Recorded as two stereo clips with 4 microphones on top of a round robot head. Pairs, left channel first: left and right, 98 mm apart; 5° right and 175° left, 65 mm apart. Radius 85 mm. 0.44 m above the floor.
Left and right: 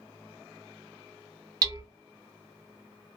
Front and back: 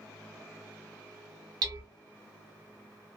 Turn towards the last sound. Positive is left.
turn(degrees=-145)